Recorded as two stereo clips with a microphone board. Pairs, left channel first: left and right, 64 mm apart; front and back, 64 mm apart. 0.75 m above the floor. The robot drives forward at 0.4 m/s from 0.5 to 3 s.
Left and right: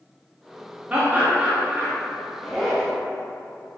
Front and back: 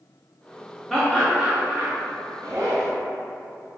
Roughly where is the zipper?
Behind.